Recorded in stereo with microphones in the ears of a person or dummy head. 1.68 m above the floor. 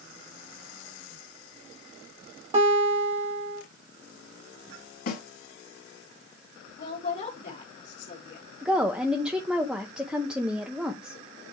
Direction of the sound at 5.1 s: 50° left (ahead or behind).